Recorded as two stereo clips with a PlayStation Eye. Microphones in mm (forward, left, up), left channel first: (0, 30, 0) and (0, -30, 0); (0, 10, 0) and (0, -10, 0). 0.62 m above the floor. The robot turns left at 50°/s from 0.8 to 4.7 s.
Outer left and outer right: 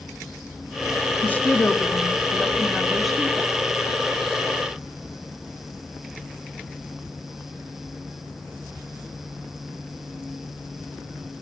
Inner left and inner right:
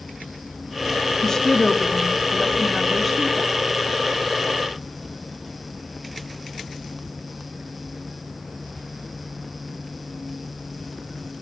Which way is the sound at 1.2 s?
30° left (ahead or behind).